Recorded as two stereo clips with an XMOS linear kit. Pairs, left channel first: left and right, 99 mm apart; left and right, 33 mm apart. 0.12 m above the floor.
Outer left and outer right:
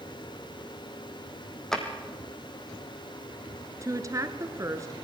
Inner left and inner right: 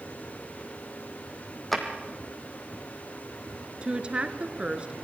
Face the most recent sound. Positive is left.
turn(degrees=-35)  # may be behind; listen again after turning